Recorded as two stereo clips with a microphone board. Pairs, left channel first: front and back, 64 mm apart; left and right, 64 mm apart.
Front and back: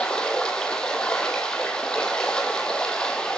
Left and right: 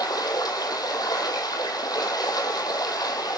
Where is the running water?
75° left, 2 m.